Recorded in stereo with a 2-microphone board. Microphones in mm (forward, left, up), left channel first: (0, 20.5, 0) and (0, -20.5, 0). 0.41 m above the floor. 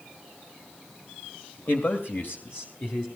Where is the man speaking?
55° left (ahead or behind), 1.6 m; by 3.1 s 50° left (ahead or behind), 2 m.